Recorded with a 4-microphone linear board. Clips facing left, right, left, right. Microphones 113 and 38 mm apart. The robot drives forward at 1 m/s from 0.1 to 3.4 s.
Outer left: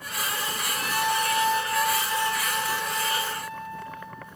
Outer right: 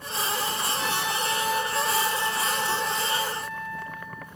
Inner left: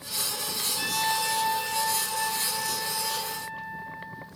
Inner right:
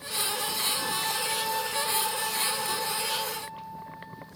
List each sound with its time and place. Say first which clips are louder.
0.8 s a trumpet: outer left 6 dB, inner left 3 dB; 60° left (ahead or behind), 1.0 m; by 4.3 s 15° left (ahead or behind), 3 m